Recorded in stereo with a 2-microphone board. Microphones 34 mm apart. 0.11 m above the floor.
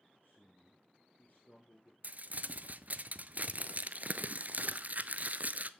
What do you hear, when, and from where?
0.2 s a man speaking: 50° left (ahead or behind), 2 m
2.0 s crumpling: 50° right (ahead or behind), 0.5 m